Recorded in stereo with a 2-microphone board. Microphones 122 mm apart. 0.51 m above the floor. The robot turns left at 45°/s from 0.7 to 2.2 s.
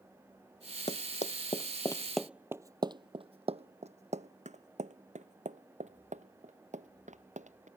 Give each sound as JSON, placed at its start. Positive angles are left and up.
{"t": 0.9, "sound": "running footsteps", "side_deg": 65}